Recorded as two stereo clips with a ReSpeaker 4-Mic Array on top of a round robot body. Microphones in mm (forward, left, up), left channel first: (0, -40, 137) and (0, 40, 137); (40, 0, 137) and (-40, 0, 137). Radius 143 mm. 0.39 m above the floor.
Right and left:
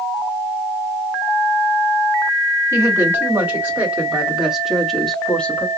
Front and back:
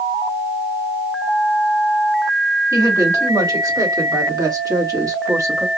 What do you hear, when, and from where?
2.7 s a woman speaking: 145° left, 2.5 m; by 5.7 s 155° right, 1.7 m